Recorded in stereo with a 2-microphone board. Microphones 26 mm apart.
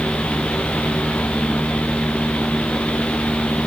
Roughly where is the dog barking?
I don't hear a dog barking.